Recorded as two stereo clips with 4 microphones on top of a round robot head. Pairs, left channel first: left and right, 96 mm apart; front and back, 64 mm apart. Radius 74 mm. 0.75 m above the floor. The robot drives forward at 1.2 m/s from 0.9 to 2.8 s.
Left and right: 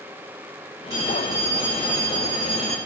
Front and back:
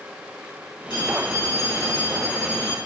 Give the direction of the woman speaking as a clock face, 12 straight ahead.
No woman speaking in this recording.